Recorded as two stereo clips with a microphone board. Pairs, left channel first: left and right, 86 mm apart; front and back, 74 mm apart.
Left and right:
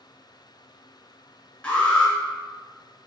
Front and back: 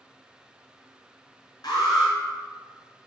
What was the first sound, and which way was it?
An alarm, 15° left.